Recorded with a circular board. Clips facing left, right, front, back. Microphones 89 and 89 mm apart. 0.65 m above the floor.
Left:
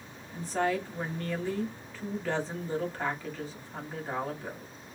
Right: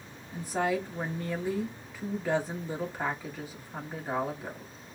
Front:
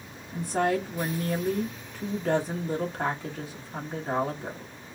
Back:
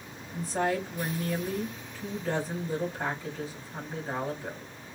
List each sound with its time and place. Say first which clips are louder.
0.3 s a woman speaking: even, front 3 dB; 15° right, 1.5 m